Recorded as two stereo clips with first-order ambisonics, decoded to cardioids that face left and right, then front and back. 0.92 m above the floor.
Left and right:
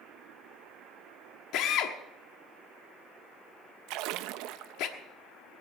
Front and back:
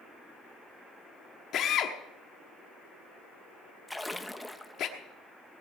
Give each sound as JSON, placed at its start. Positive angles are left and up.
{"t": 1.5, "sound": "a drill", "azimuth_deg": 55, "distance_m": 1.2}
{"t": 3.9, "sound": "a splash", "azimuth_deg": -85, "distance_m": 0.5}